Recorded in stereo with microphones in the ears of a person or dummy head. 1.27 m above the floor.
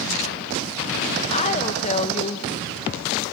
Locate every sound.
1.3 s a woman speaking: 35° left (ahead or behind), 1.3 m